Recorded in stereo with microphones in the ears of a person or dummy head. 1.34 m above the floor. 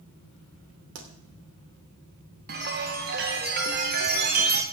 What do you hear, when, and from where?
0.9 s a pop: 75° right (ahead or behind), 2.5 m
2.5 s a chime: 45° right (ahead or behind), 1.4 m